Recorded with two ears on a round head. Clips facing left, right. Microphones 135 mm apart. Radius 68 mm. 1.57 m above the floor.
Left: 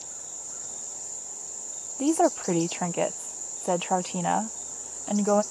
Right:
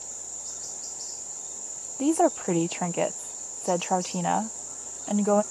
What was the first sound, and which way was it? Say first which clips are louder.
A woman speaking: even; centre (ahead or behind).